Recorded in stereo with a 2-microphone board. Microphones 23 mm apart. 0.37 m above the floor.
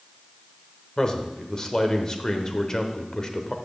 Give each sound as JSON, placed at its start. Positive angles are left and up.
{"t": 1.0, "sound": "a man speaking", "side_deg": 25, "distance_m": 1.0}